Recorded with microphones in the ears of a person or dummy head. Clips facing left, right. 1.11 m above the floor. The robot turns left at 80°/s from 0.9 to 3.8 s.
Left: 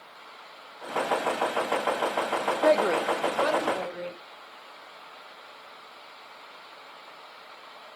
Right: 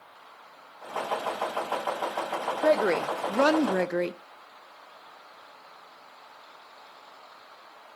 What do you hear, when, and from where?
2.6 s a woman speaking: 5° left, 0.7 m; by 4.1 s 90° right, 0.7 m